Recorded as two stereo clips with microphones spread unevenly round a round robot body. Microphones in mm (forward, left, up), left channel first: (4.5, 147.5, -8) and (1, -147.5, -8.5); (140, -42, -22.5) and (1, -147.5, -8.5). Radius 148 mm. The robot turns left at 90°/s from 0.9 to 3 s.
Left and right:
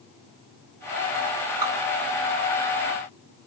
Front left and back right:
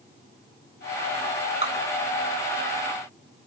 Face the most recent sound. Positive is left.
turn(degrees=145)